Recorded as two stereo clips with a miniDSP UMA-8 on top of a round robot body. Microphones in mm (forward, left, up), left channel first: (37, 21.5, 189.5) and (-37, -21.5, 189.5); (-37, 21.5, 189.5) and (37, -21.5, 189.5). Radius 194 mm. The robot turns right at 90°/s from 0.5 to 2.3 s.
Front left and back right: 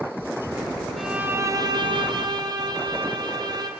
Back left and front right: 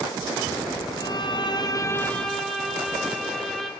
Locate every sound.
1.0 s a violin: 120° left, 2.0 m; by 3.7 s 120° right, 2.0 m